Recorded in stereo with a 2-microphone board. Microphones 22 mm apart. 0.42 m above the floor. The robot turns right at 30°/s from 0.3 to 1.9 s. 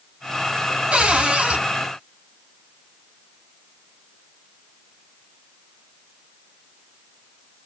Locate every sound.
0.9 s a cupboard door: 65° right (ahead or behind), 2.5 m